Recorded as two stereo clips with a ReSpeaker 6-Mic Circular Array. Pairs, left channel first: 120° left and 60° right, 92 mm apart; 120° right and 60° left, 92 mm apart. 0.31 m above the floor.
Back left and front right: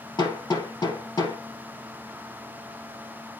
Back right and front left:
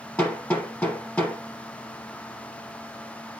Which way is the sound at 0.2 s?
160° left.